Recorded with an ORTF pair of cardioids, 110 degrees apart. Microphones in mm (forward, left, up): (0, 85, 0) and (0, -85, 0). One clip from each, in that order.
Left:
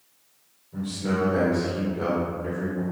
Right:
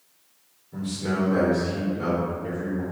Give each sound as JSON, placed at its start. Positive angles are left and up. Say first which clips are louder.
{"t": 0.7, "sound": "a man speaking", "louder": "left 1 dB", "azimuth_deg": -20, "distance_m": 1.0}